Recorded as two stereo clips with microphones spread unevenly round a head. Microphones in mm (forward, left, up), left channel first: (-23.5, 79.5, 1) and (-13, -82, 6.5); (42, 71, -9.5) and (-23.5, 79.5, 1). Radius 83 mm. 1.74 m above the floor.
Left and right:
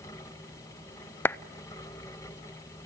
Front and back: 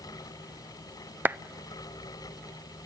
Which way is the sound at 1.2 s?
165° left.